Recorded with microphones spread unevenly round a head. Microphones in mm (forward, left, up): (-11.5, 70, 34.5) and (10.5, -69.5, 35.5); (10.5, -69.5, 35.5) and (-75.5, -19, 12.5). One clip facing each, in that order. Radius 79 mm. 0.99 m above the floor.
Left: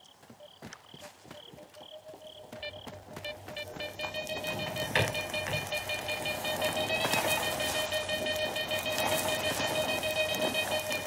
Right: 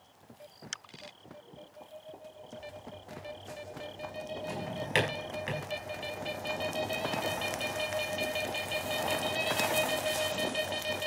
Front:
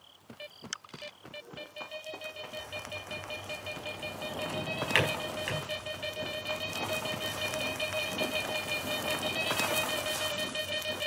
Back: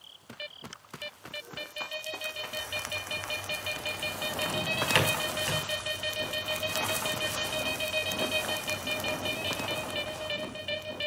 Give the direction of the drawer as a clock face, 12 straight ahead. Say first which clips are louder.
Right 1 dB, back 3 dB; 5 o'clock.